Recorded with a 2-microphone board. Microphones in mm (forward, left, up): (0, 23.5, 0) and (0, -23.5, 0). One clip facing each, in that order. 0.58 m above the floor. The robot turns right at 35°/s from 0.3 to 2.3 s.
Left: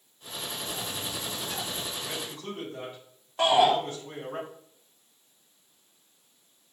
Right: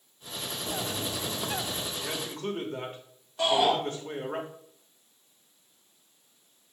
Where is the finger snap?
I don't hear a finger snap.